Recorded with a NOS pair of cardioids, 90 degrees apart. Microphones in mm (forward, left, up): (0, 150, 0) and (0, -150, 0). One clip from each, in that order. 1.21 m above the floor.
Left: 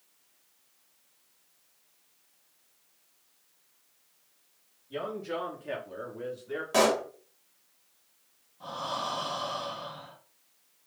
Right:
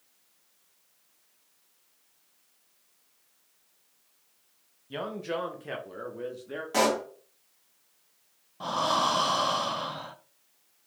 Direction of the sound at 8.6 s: 65° right.